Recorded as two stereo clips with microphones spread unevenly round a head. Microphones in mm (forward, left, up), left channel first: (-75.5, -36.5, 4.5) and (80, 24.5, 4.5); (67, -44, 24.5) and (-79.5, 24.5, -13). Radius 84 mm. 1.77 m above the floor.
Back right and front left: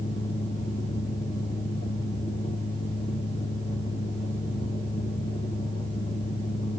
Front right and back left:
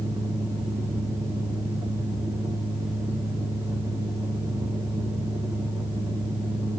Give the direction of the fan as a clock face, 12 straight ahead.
4 o'clock.